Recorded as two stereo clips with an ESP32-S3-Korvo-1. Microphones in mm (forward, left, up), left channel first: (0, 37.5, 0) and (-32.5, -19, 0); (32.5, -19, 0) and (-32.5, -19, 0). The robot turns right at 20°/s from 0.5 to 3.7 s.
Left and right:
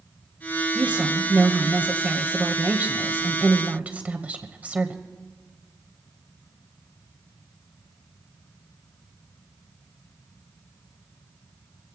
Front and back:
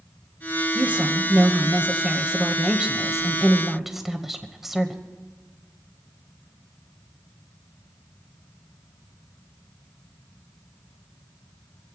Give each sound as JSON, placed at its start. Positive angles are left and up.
{"t": 0.8, "sound": "a woman speaking", "azimuth_deg": -155, "distance_m": 1.1}